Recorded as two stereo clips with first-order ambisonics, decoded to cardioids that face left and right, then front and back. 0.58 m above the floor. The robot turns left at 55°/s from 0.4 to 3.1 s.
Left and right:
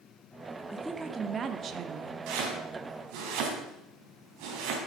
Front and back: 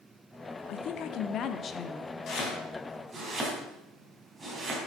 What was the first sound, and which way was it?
A woman speaking, 5° left.